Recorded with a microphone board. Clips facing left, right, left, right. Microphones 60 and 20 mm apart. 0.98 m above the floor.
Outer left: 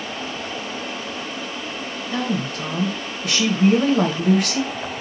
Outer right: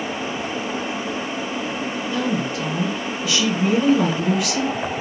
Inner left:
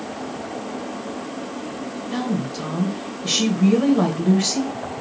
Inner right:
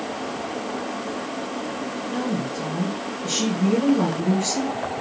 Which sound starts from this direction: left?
A woman speaking, at 2.1 s.